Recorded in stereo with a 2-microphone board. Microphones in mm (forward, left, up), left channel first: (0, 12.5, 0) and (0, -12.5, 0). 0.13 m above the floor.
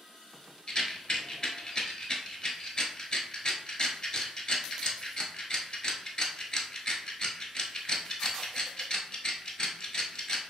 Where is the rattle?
35° left (ahead or behind), 0.9 m.